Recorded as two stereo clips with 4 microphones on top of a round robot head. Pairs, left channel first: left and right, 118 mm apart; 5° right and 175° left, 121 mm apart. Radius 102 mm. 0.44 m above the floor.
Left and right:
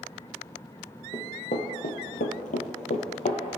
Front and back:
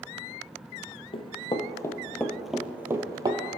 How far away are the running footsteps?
About 0.9 m.